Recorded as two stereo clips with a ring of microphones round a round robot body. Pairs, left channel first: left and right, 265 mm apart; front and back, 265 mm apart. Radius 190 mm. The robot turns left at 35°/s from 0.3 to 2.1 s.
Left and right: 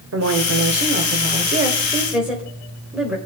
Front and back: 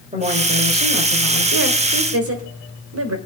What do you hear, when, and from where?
0.1 s a woman speaking: 115° right, 1.8 m; by 3.2 s 175° right, 1.8 m